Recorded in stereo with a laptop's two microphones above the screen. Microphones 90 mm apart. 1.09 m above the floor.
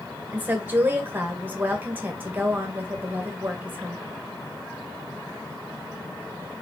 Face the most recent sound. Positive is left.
turn(degrees=-20)  # may be behind; listen again after turning